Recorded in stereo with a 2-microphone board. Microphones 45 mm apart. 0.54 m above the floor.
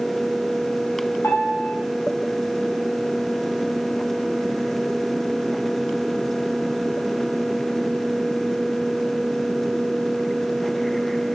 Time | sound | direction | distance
1.2 | a piano | 70° left (ahead or behind) | 5.5 m